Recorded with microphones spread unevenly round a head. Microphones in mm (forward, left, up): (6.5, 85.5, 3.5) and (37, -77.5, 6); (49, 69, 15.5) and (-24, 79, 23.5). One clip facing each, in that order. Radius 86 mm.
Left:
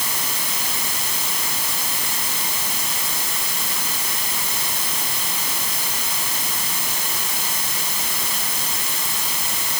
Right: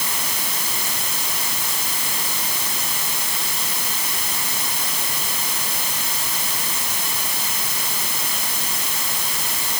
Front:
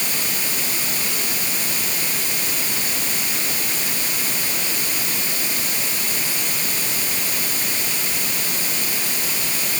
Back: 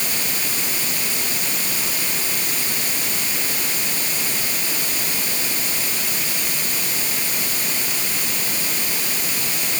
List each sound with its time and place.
Only background noise.